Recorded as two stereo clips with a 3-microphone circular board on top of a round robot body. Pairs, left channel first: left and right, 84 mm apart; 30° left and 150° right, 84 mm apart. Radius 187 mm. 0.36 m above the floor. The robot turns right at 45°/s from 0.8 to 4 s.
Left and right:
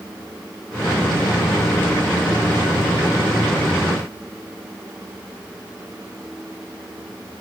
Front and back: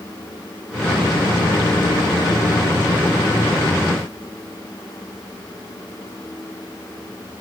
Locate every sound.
Only background noise.